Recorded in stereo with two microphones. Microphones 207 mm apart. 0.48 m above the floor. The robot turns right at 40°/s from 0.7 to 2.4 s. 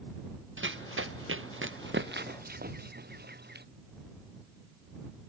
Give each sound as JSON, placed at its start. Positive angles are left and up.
{"t": 0.6, "sound": "running footsteps", "side_deg": -75}